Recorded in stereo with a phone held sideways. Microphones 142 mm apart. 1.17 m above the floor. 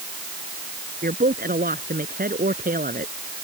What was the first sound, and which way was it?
A woman speaking, 85° right.